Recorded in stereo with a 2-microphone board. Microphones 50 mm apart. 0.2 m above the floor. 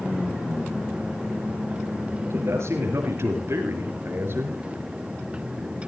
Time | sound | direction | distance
2.2 | a man speaking | 60° right (ahead or behind) | 3.5 m